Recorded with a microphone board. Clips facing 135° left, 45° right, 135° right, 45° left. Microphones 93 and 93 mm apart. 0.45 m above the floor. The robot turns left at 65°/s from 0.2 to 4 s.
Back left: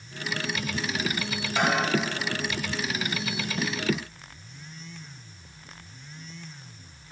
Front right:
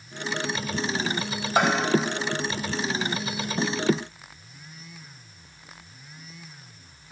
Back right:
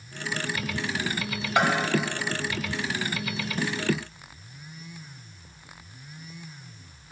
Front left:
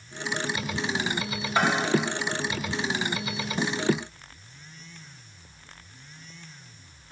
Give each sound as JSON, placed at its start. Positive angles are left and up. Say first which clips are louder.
{"t": 1.6, "sound": "a bell", "louder": "front right 3 dB, back right 1 dB", "azimuth_deg": -65, "distance_m": 2.5}